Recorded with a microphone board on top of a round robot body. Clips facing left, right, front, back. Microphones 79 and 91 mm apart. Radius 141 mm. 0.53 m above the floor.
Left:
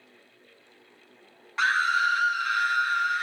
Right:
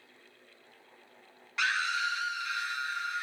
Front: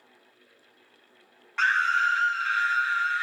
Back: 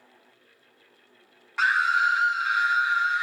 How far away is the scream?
About 0.8 m.